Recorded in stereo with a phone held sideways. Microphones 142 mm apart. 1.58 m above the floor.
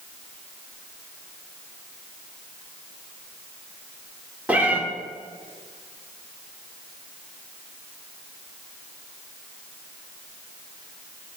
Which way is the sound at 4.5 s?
10° right (ahead or behind).